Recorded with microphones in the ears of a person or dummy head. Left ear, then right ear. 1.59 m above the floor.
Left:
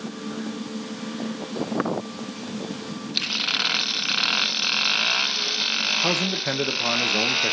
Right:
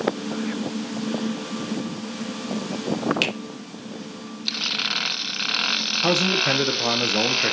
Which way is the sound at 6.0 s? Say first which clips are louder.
Right 3 dB; 5° left (ahead or behind).